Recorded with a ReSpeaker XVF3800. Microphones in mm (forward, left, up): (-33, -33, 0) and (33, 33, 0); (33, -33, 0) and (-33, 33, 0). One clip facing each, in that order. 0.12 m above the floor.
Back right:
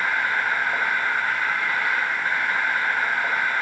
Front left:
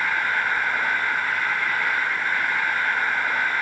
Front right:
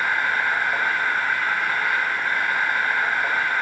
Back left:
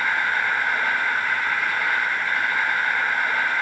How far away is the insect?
About 7 m.